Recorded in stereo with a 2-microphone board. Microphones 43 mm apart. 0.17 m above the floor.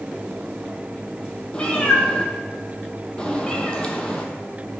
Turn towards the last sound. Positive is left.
turn(degrees=20)  # may be behind; listen again after turning